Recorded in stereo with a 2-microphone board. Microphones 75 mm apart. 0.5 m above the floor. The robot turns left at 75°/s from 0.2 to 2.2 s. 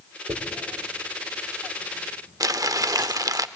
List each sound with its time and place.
0.3 s a dropped coin: 80° right, 5 m; by 3.4 s 60° left (ahead or behind), 5 m
2.4 s crumpling: 50° right (ahead or behind), 0.5 m